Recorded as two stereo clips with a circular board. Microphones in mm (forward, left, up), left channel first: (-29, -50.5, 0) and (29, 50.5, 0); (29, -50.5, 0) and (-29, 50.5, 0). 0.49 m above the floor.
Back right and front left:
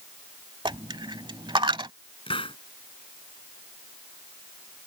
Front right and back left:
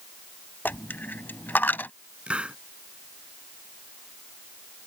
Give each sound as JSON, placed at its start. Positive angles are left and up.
{"t": 0.7, "sound": "a dropped coin", "azimuth_deg": 15}
{"t": 2.3, "sound": "a hiss", "azimuth_deg": -160}